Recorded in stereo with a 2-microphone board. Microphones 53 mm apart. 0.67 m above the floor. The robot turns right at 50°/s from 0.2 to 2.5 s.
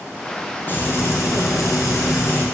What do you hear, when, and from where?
0.7 s frying: 40° left, 3.5 m; by 2.4 s 130° left, 3.5 m